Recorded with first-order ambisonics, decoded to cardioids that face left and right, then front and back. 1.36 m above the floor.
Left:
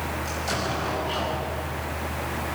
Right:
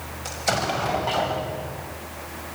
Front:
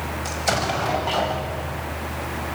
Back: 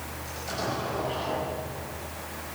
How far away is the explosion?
About 6 m.